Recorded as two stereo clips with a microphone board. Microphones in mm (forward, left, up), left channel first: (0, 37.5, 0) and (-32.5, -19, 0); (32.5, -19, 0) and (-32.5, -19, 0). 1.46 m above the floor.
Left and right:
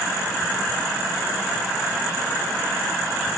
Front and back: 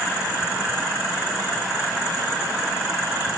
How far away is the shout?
I don't hear a shout.